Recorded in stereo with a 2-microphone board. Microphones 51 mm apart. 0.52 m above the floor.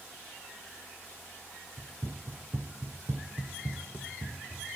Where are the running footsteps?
25° right (ahead or behind), 1.1 m; by 4.7 s 55° right (ahead or behind), 1.4 m.